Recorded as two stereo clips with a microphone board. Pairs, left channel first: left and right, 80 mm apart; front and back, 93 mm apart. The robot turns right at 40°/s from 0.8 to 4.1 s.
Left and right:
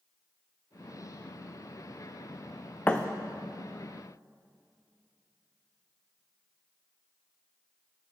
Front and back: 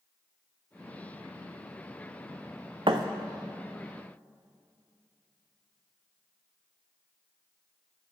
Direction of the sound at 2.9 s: 155° left.